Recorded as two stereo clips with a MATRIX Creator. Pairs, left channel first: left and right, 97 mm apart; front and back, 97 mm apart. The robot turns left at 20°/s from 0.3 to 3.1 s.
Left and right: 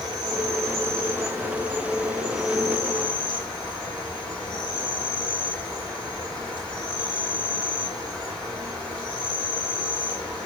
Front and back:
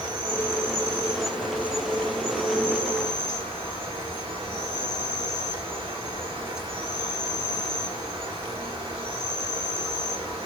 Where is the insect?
130° right, 8 m; by 10.5 s 170° left, 8 m.